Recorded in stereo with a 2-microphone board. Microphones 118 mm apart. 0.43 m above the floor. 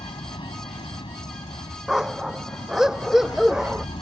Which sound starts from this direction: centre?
A dog barking, at 1.9 s.